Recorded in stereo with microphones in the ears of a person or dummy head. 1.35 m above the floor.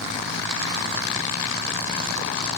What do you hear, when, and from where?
1.1 s a zipper: 5° left (ahead or behind), 2 m